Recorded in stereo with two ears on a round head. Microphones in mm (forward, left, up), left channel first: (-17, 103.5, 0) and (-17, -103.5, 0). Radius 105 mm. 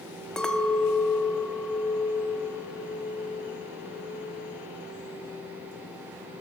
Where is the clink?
5° left (ahead or behind), 0.9 m.